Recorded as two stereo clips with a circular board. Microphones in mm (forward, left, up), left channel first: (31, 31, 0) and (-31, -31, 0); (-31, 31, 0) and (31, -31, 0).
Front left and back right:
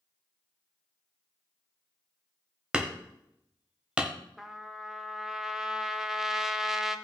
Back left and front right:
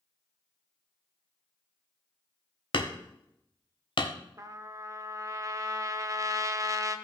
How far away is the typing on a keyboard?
No typing on a keyboard in this recording.